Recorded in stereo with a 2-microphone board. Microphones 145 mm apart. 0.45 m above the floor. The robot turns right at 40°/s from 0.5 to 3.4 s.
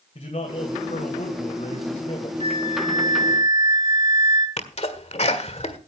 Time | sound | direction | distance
0.1 | a man speaking | 60° left | 2 m
2.4 | a flute | 45° left | 2.5 m
4.6 | a sneeze | 50° left (ahead or behind) | 1.7 m